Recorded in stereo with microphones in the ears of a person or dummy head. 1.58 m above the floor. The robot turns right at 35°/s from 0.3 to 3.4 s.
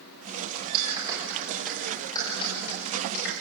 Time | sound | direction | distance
0.7 | a clap | 30° right (ahead or behind) | 5.5 m